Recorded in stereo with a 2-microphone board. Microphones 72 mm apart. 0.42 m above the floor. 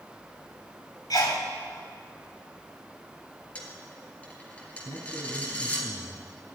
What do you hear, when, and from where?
1.1 s a sneeze: 65° left (ahead or behind), 2.5 m
3.5 s a dropped coin: 20° left (ahead or behind), 3.5 m
4.8 s a man speaking: 45° left (ahead or behind), 2.5 m